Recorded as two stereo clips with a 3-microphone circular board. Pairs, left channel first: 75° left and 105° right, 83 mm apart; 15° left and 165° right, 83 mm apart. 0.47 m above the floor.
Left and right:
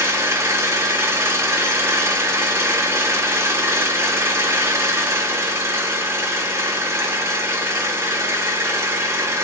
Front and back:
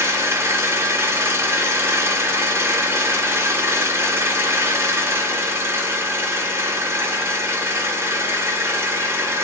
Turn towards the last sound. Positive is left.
turn(degrees=-135)